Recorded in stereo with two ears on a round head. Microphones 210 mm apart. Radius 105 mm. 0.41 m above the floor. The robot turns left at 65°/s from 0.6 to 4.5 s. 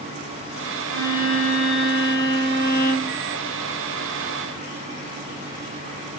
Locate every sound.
0.9 s a violin: 165° left, 1.5 m; by 3.2 s 20° left, 1.5 m